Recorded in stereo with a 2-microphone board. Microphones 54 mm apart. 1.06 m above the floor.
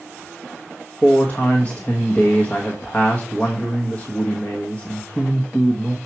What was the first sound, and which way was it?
A man speaking, 35° left (ahead or behind).